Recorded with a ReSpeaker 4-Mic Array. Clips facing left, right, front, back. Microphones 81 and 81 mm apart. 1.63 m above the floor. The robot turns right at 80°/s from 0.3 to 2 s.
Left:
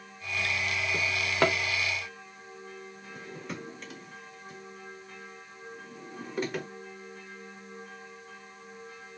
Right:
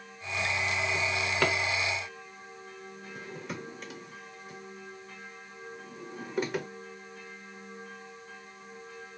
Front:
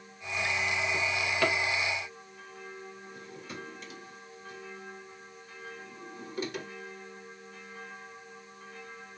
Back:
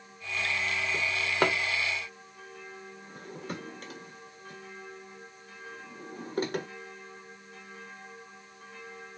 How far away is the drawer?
About 1.2 m.